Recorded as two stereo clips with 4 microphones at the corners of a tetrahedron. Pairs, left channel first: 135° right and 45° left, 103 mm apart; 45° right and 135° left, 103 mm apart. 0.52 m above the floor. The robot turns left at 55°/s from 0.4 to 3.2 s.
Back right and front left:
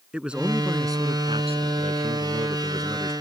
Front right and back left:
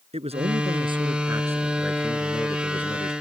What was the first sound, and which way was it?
A man speaking, 125° left.